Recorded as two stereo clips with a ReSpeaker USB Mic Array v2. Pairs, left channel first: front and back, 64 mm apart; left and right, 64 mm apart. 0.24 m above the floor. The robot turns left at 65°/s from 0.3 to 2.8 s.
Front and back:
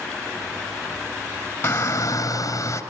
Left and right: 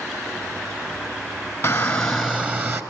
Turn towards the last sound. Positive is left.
turn(degrees=-40)